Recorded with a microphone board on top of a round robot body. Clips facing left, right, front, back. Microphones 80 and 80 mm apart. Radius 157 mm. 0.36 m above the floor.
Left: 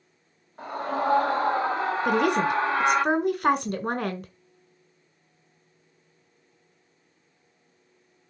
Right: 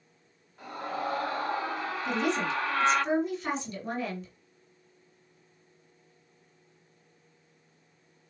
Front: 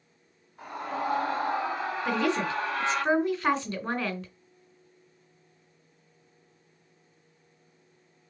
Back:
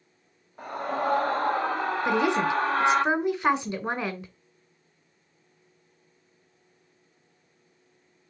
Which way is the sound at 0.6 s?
145° left.